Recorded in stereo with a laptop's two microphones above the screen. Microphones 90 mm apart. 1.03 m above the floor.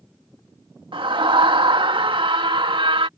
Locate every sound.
0.9 s a scream: 70° right (ahead or behind)